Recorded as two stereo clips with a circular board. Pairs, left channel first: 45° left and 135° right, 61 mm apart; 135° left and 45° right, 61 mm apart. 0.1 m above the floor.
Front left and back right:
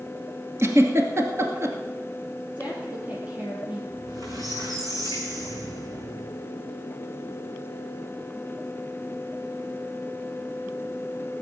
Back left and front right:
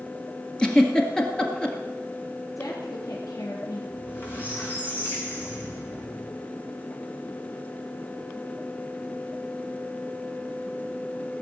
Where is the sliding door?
No sliding door in this recording.